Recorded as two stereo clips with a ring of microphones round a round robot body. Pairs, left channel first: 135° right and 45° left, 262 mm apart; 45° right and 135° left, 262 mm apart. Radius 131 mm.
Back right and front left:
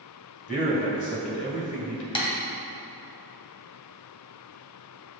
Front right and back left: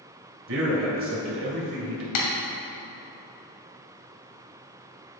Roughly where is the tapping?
Ahead right.